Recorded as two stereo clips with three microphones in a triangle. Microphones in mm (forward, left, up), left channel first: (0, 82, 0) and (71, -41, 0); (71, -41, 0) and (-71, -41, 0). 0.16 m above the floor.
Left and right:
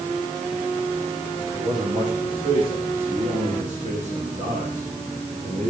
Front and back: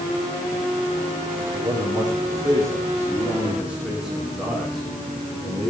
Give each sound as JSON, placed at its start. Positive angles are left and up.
{"t": 1.5, "sound": "a man speaking", "azimuth_deg": -120, "distance_m": 8.0}